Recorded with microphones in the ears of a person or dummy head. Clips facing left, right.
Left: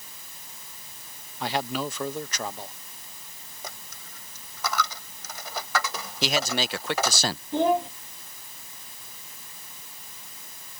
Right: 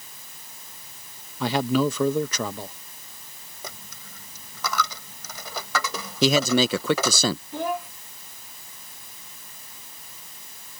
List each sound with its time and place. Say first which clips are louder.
1.4 s a man speaking: right 7 dB; 70° right (ahead or behind)
3.6 s a dropped coin: right 1 dB; 70° right (ahead or behind)
6.2 s a man speaking: right 8 dB; 75° right (ahead or behind)
7.5 s a child speaking: left 6 dB; 25° left (ahead or behind)